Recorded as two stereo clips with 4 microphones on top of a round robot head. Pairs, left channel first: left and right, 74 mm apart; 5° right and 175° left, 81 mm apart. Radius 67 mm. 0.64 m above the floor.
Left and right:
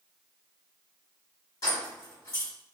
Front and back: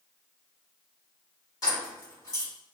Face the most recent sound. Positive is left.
turn(degrees=40)